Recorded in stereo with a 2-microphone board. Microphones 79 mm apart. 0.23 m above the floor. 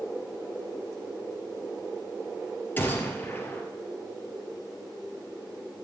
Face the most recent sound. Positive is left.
turn(degrees=25)  # may be behind; listen again after turning